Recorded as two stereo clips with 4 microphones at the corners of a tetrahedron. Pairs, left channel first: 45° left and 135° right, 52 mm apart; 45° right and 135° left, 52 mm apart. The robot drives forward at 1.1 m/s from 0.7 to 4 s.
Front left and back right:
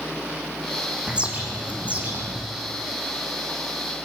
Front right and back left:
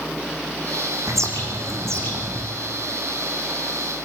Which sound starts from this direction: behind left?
A bird, at 1.1 s.